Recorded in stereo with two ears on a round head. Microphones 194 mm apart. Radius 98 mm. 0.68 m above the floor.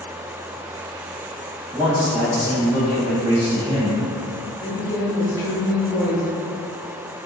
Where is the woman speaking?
15° left (ahead or behind), 0.6 m.